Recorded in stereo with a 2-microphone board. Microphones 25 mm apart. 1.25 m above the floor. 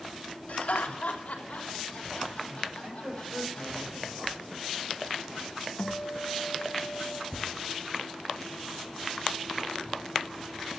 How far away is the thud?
About 2.5 m.